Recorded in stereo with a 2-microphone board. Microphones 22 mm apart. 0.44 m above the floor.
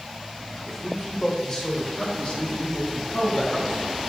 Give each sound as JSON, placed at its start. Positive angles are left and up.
{"t": 0.7, "sound": "a man speaking", "side_deg": -10, "distance_m": 1.8}